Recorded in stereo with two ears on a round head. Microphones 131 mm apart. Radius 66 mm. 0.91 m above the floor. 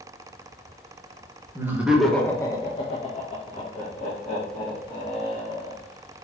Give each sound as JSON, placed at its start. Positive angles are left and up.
{"t": 1.6, "sound": "laughter", "side_deg": -15, "distance_m": 0.9}